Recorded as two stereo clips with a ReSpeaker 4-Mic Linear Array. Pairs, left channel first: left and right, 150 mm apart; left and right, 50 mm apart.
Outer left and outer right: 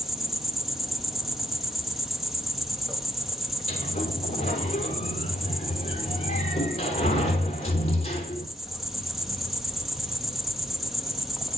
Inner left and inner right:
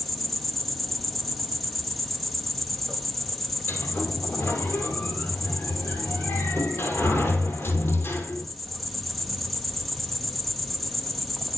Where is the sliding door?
45° left (ahead or behind), 3 m.